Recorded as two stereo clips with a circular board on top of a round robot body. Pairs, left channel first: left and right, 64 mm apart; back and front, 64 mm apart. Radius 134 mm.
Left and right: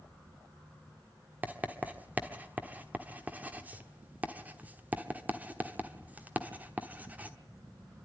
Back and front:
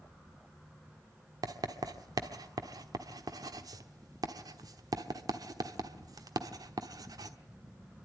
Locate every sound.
1.4 s writing: 25° right, 1.2 m